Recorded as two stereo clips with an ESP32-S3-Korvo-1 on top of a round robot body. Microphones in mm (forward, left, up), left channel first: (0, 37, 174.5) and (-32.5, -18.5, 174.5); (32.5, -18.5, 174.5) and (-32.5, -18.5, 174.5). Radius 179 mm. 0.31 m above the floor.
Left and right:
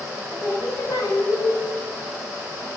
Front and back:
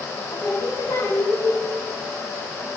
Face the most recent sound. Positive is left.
turn(degrees=25)